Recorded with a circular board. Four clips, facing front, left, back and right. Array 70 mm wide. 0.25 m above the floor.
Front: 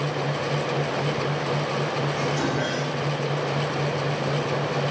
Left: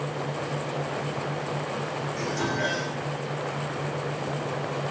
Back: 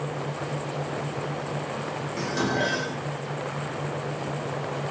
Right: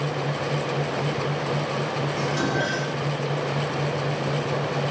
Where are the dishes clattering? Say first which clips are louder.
Right 2 dB, front 1 dB; 135° right, 9 m.